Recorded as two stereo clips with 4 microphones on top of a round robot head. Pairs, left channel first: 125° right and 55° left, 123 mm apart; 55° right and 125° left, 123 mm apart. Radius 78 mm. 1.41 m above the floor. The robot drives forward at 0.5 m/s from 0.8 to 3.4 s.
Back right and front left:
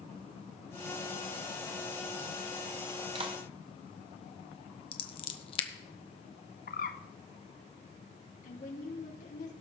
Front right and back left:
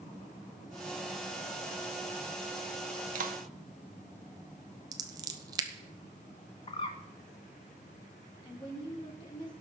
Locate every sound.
3.1 s a clap: 105° left, 1.3 m; by 3.4 s 110° left, 1.3 m
4.9 s scissors: 175° right, 1.0 m
6.7 s a bird: 105° right, 0.6 m
8.4 s a woman speaking: 105° right, 3.5 m